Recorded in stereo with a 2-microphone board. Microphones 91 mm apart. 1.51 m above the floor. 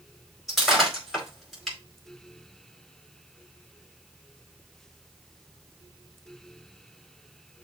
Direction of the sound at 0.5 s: Centre (ahead or behind).